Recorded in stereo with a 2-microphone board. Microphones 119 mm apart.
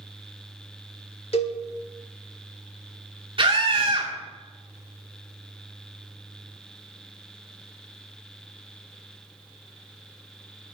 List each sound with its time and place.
1.3 s a cowbell: 55° left (ahead or behind), 1.3 m
3.4 s a scream: 45° right (ahead or behind), 1.8 m